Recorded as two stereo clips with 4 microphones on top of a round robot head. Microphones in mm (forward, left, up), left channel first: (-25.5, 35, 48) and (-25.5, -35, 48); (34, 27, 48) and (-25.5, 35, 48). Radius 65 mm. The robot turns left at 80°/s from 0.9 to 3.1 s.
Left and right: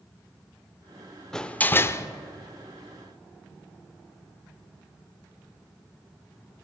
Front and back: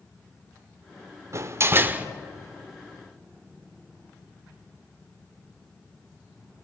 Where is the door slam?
170° left, 0.7 m; by 2.1 s 115° left, 0.7 m.